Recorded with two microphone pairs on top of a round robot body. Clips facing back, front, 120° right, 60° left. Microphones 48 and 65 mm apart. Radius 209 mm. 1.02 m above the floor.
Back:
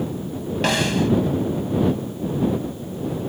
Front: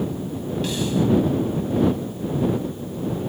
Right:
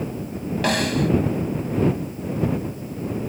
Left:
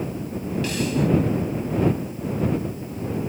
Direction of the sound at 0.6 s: 150° right.